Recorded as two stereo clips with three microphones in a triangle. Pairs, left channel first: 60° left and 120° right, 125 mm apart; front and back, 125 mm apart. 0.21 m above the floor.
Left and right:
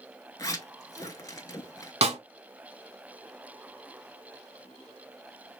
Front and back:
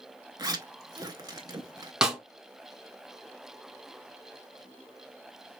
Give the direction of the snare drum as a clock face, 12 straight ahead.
3 o'clock.